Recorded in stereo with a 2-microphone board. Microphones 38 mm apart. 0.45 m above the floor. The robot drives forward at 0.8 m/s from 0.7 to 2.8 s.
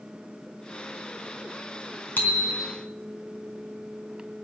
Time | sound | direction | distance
2.2 | a bicycle bell | 55° left (ahead or behind) | 3 m